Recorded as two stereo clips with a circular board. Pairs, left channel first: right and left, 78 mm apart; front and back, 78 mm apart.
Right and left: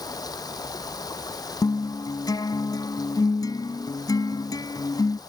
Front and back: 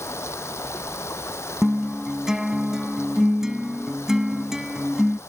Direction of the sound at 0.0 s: 55° right.